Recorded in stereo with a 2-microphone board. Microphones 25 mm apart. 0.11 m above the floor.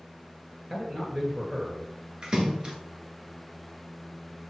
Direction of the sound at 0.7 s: 20° right (ahead or behind).